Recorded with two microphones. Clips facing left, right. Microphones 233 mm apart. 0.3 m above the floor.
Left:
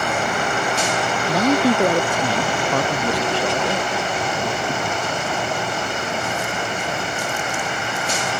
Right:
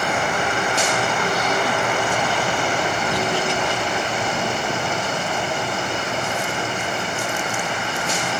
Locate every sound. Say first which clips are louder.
1.3 s a man speaking: left 6 dB; 80° left